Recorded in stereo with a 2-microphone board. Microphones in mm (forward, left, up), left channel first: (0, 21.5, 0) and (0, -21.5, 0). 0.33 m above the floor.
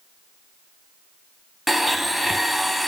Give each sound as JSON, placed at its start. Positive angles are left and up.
{"t": 1.7, "sound": "a blender", "side_deg": 0, "distance_m": 0.8}